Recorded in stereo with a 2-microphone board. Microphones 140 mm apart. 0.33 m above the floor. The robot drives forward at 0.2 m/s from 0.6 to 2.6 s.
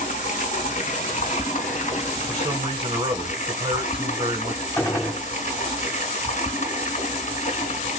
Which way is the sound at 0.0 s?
75° left (ahead or behind).